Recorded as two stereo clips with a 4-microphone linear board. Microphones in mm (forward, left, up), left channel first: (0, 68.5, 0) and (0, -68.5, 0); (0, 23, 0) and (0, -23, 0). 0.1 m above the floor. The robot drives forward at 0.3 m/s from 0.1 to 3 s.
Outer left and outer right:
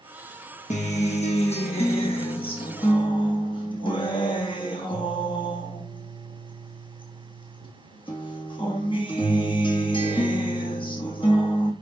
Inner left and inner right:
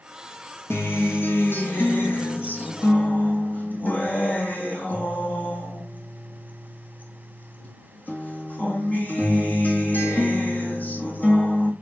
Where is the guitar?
65° left (ahead or behind), 1.1 m; by 11.7 s 40° left (ahead or behind), 1.5 m.